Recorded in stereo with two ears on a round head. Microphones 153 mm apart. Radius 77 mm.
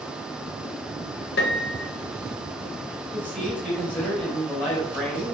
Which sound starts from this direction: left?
A piano, at 1.4 s.